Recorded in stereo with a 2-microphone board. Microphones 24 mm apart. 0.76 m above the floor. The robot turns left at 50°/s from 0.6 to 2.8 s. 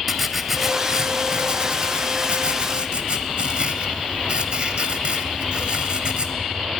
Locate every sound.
0.1 s writing: 15° right, 0.8 m; by 6.3 s 125° right, 0.8 m